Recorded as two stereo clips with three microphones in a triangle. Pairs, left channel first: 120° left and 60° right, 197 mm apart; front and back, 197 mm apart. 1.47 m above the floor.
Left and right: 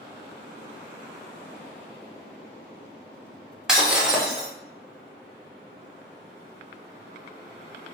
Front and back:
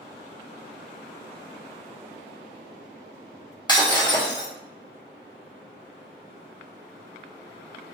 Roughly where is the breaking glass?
Ahead left.